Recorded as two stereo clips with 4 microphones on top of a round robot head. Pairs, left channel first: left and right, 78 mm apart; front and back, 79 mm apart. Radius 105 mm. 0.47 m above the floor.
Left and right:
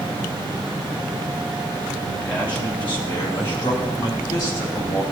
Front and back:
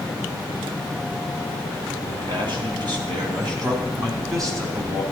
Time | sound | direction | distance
2.1 | a man speaking | 170° left | 4 m